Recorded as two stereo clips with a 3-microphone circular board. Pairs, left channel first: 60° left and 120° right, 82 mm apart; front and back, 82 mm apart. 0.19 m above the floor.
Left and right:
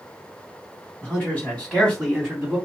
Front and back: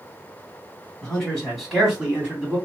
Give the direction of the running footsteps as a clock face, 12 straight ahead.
I don't hear running footsteps.